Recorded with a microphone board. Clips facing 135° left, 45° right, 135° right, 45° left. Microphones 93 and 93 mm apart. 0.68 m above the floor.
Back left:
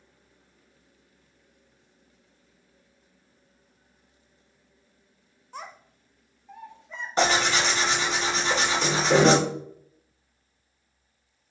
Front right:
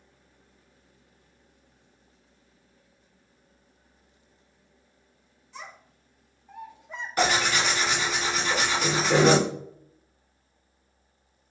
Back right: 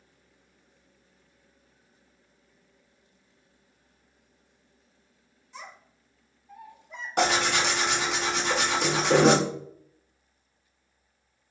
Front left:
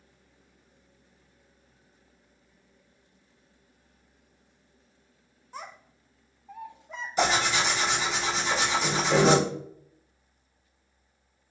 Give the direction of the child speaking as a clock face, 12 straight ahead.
9 o'clock.